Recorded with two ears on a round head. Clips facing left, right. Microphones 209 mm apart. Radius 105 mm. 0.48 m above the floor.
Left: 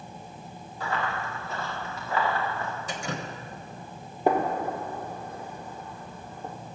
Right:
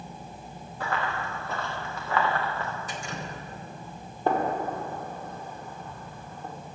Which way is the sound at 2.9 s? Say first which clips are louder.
Left 3 dB; 60° left (ahead or behind).